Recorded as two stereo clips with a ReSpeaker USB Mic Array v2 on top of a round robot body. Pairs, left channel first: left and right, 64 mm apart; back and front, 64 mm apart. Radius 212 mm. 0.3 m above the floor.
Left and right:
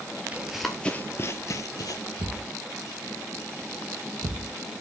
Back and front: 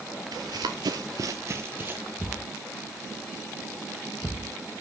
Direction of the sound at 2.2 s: 95° right.